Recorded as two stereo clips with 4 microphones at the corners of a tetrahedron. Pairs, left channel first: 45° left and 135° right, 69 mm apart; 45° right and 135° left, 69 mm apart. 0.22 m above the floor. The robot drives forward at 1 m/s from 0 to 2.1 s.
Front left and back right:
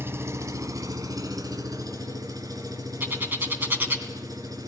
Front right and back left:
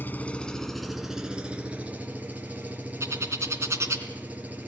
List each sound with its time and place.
0.0 s an engine running: 95° right, 1.2 m; by 4.7 s 160° right, 2.5 m
3.0 s a bird: 170° left, 2.5 m